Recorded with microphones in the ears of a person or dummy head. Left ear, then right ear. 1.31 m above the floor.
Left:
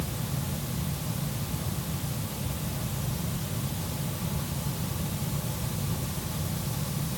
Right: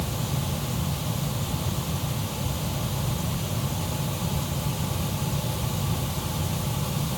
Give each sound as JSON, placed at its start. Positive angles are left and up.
{"t": 0.0, "sound": "a fan", "side_deg": -75}